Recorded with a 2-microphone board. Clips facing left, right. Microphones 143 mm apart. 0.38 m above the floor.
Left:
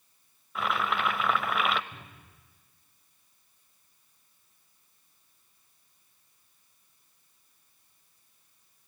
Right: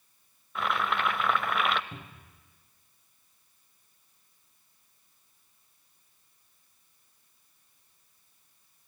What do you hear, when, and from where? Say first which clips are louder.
0.6 s boiling: even; centre (ahead or behind), 0.8 m
1.9 s a cupboard door: right 4 dB; 60° right (ahead or behind), 4.5 m